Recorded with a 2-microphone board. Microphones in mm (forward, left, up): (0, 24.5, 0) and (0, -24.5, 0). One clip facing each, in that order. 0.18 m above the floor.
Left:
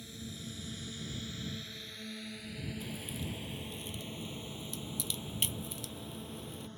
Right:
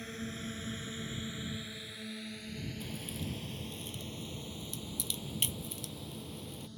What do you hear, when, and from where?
0.0 s a drone: 50° right (ahead or behind); by 6.8 s 35° left (ahead or behind)
2.8 s a crack: 5° left (ahead or behind)